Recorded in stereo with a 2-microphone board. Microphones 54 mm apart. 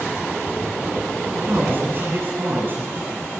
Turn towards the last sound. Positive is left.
turn(degrees=-40)  # may be behind; listen again after turning